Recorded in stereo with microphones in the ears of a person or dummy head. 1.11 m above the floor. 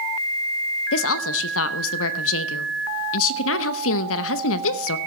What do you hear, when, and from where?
0.9 s a woman speaking: 75° left (ahead or behind), 0.7 m